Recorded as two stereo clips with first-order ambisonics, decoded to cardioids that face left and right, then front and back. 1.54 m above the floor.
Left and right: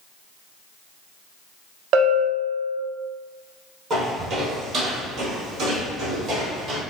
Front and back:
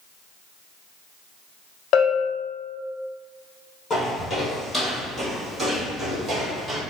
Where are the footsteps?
60° right, 1.8 m; by 6.8 s 125° right, 2.5 m.